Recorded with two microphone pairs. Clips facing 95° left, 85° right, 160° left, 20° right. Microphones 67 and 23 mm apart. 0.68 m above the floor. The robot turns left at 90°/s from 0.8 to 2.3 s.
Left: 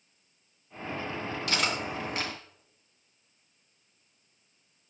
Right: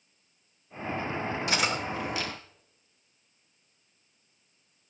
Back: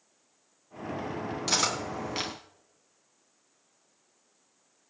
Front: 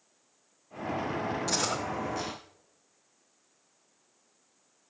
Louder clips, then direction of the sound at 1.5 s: Even, back 6 dB; 155° right.